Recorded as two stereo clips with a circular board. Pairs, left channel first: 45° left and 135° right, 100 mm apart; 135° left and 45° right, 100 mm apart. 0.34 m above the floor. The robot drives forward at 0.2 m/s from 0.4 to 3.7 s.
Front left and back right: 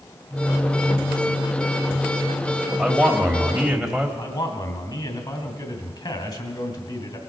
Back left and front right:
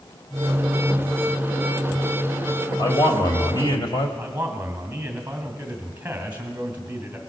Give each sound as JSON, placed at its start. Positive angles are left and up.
{"t": 2.8, "sound": "a man speaking", "azimuth_deg": 135, "distance_m": 1.6}
{"t": 4.2, "sound": "a man speaking", "azimuth_deg": 30, "distance_m": 2.5}